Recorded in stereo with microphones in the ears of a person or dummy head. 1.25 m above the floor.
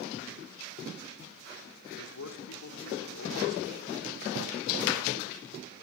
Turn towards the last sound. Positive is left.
turn(degrees=85)